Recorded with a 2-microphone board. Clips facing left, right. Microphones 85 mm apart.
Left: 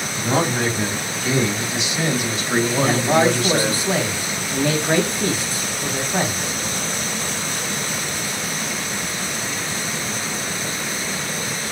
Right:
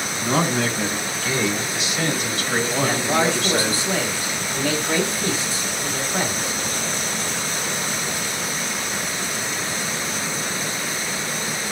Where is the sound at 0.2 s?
30° left (ahead or behind), 3 m; by 3.8 s centre (ahead or behind), 1.7 m.